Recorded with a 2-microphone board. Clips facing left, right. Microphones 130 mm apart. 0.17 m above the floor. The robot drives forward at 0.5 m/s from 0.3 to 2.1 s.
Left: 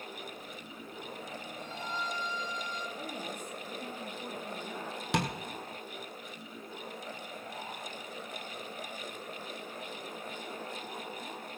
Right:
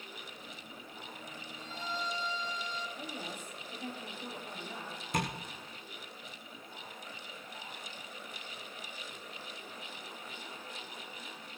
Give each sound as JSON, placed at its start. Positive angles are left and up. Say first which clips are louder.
{"t": 1.6, "sound": "a violin", "louder": "even", "side_deg": 60, "distance_m": 2.5}
{"t": 3.0, "sound": "a woman speaking", "louder": "left 3 dB", "side_deg": 60, "distance_m": 4.5}
{"t": 5.1, "sound": "tapping", "louder": "left 3 dB", "side_deg": 80, "distance_m": 2.5}